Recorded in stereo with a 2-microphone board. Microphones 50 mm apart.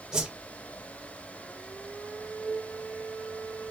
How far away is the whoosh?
About 2 m.